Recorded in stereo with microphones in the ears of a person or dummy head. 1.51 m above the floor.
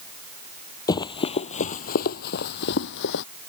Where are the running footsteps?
20° left (ahead or behind); by 3.2 s 65° left (ahead or behind).